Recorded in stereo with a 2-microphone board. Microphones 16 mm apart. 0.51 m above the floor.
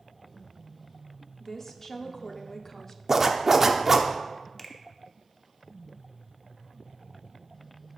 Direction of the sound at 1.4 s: 25° left (ahead or behind).